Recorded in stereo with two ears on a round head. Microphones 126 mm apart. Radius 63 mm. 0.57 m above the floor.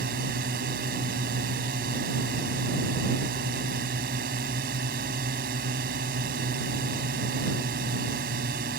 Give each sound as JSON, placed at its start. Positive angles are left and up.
{"t": 0.0, "sound": "a drone", "side_deg": -70}